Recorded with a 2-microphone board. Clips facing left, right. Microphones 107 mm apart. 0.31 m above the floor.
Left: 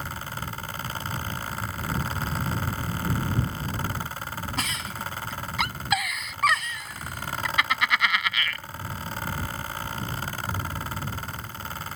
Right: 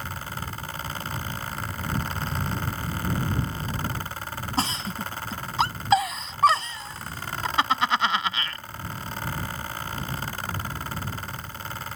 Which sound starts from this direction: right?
A giggle, at 4.6 s.